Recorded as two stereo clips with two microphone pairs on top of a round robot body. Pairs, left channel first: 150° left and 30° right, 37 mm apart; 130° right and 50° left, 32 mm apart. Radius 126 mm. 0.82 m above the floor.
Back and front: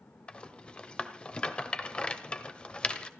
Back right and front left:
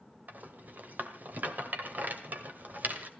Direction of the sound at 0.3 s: 85° left.